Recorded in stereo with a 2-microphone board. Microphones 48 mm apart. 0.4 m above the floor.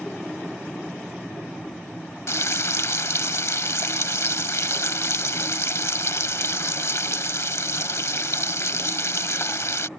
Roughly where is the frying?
Left.